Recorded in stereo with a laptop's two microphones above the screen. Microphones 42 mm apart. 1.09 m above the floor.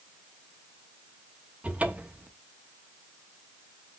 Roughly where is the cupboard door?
Right.